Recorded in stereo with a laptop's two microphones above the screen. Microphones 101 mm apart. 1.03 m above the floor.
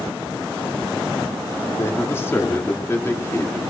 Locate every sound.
1.8 s a man speaking: 25° left (ahead or behind), 2.5 m